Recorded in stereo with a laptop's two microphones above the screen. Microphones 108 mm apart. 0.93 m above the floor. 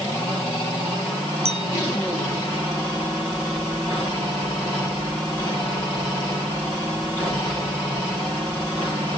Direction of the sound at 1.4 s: 75° right (ahead or behind).